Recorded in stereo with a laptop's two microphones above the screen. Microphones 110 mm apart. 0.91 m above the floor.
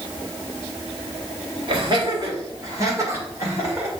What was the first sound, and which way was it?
Laughter, 50° right (ahead or behind).